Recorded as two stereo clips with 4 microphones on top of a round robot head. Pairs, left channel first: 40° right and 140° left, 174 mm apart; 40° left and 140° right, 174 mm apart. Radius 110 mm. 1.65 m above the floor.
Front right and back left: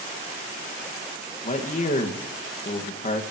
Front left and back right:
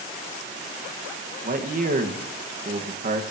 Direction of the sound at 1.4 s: 95° right.